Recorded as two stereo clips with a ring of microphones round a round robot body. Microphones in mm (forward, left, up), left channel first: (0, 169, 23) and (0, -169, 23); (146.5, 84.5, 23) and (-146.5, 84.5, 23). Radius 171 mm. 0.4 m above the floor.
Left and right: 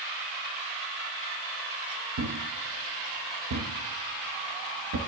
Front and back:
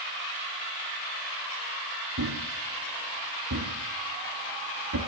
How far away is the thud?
About 1.8 m.